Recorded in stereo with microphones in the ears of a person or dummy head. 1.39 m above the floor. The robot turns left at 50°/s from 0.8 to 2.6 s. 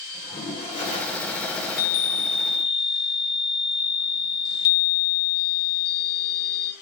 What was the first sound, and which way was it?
A toilet flushing, 145° left.